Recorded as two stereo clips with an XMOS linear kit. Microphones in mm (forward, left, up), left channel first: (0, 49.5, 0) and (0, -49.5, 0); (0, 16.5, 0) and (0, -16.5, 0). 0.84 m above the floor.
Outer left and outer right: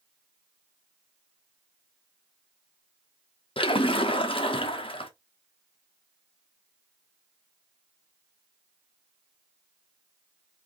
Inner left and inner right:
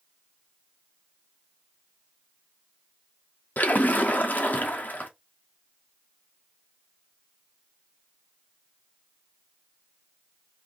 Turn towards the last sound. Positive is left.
turn(degrees=65)  # may be behind; listen again after turning